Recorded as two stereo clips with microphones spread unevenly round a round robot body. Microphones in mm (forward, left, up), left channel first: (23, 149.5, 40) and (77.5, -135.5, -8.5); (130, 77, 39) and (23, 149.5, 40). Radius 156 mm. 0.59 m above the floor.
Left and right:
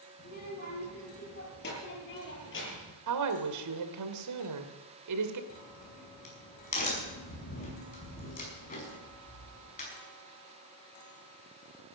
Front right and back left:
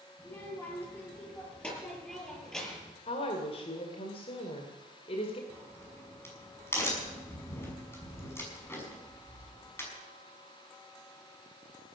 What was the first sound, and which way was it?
A child speaking, 40° left.